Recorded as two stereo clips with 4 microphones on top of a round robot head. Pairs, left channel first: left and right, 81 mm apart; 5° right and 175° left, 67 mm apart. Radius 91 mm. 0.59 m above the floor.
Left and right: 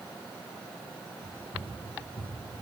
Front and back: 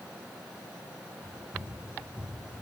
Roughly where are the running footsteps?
Left.